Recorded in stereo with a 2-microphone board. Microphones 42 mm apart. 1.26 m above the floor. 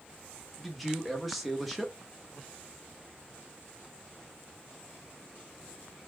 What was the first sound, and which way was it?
A man speaking, centre (ahead or behind).